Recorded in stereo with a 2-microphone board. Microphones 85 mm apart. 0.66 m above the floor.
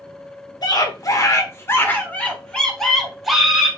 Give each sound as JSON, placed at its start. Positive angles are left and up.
{"t": 0.6, "sound": "a scream", "side_deg": 55, "distance_m": 1.9}